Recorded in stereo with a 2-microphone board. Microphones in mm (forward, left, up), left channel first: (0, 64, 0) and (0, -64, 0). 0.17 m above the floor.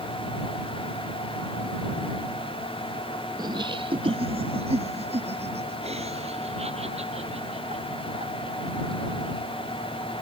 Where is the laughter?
35° right (ahead or behind); by 9.2 s 55° right (ahead or behind).